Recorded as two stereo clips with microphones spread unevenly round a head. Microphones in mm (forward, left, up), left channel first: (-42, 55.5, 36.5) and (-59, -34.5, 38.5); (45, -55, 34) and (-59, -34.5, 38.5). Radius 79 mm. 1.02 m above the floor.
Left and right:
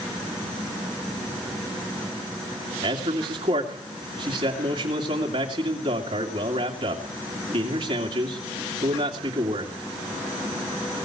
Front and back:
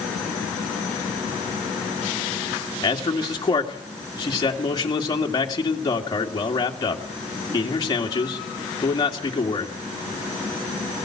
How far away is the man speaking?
About 2.5 m.